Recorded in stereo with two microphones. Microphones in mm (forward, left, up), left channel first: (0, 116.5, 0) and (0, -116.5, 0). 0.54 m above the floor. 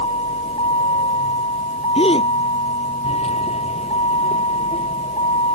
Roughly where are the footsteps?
I don't hear footsteps.